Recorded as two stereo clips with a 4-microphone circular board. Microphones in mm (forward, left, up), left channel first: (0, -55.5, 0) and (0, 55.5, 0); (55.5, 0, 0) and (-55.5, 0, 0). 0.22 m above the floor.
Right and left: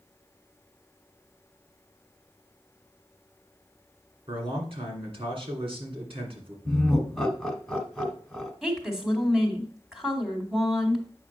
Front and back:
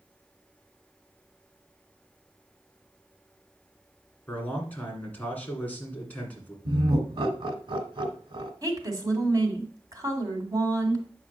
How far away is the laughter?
About 1.3 m.